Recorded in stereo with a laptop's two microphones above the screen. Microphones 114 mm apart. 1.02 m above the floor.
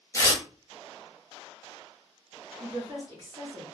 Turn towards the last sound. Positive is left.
turn(degrees=-50)  # may be behind; listen again after turning